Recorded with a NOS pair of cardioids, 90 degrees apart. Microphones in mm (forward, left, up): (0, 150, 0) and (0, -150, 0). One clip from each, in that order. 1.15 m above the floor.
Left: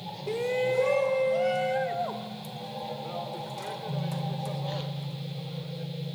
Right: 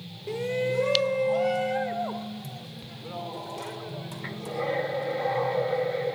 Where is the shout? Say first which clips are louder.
Left 1 dB; 5° left, 0.5 m; by 5.9 s 5° right, 5 m.